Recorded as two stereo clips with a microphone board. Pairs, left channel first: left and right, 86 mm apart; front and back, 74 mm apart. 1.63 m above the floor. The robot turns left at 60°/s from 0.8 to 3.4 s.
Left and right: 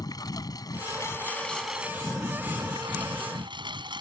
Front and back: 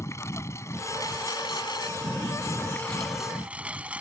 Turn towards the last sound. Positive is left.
turn(degrees=-105)